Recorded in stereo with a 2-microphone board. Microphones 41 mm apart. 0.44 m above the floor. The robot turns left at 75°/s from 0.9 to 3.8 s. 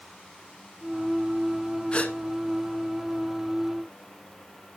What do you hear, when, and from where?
1.9 s a gasp: 25° left (ahead or behind), 1.2 m; by 2.1 s 40° left (ahead or behind), 1.2 m